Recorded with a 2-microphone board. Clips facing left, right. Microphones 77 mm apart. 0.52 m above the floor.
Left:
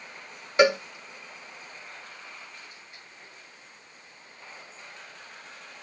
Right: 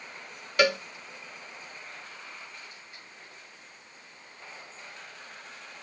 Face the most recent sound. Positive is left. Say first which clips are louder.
# left 4 dB
turn(degrees=25)  # may be behind; listen again after turning